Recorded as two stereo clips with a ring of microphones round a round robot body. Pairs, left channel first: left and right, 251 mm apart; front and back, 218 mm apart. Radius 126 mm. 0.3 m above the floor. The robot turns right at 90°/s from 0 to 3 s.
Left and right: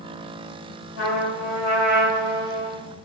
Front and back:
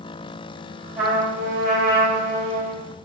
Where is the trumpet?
100° left, 1.9 m; by 2.8 s 100° right, 1.9 m.